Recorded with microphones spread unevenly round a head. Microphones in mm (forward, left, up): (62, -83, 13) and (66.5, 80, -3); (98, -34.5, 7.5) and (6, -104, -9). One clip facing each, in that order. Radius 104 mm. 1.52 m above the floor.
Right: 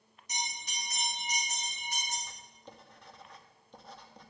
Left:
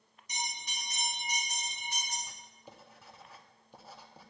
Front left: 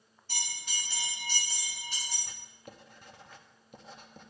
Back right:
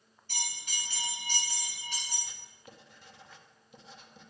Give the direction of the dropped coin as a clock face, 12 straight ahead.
I don't hear a dropped coin.